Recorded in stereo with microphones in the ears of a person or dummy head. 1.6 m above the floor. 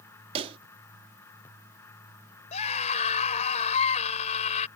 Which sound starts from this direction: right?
A pop, at 0.3 s.